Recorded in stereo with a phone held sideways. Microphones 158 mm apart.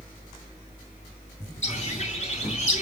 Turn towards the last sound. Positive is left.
turn(degrees=50)  # may be behind; listen again after turning